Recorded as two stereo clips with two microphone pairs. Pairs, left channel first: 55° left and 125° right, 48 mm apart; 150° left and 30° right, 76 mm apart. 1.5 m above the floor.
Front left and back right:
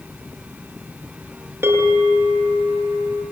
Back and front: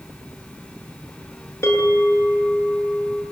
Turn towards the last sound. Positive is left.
turn(degrees=-155)